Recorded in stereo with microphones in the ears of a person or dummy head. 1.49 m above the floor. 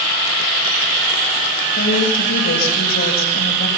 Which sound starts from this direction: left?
A woman speaking, at 1.8 s.